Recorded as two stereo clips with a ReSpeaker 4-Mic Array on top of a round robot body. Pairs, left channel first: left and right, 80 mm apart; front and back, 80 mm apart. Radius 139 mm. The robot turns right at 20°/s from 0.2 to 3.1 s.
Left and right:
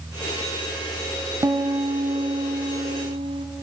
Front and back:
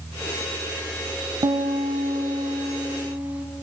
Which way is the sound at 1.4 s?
145° right.